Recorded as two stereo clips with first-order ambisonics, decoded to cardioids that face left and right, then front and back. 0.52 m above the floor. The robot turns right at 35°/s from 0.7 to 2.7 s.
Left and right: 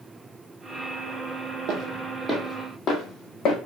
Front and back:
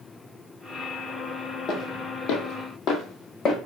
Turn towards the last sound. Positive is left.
turn(degrees=55)